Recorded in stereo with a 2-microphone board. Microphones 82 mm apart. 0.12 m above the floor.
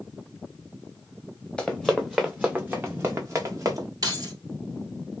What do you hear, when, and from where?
1.6 s running footsteps: 10° left (ahead or behind), 0.9 m; by 3.9 s 45° right (ahead or behind), 1.4 m
4.0 s keys jangling: 55° right (ahead or behind), 1.7 m